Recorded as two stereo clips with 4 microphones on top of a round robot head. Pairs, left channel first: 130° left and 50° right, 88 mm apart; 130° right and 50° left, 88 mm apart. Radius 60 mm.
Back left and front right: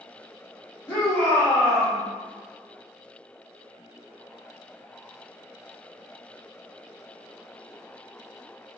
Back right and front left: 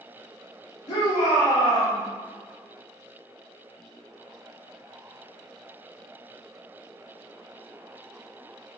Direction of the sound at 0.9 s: 165° right.